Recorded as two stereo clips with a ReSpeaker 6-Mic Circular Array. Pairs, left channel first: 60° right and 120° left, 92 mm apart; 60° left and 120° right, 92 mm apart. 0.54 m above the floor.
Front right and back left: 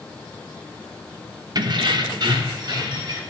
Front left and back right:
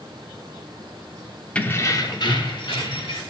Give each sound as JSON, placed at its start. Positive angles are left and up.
{"t": 1.6, "sound": "keys jangling", "azimuth_deg": 135, "distance_m": 0.6}